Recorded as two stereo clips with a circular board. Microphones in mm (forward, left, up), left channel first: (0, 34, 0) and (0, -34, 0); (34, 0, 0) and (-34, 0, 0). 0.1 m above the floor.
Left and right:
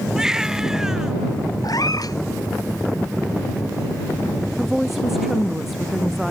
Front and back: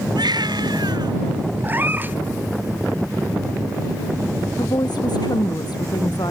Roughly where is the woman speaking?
Ahead.